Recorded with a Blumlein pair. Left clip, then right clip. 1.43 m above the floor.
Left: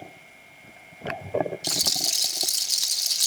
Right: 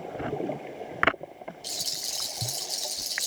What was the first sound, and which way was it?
A rattle, 65° left.